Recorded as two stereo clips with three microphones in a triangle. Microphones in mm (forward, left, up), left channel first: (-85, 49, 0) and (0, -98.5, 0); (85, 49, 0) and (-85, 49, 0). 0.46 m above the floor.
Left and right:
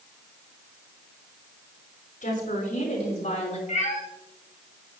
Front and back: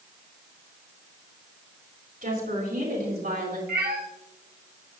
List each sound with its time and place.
2.2 s a woman speaking: 155° left, 5 m; by 3.6 s 165° left, 4.5 m
3.7 s a cat meowing: 165° left, 1.7 m